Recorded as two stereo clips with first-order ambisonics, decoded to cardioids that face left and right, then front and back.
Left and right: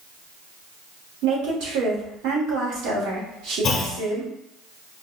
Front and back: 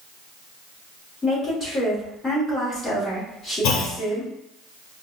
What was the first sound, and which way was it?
A woman speaking, 75° right.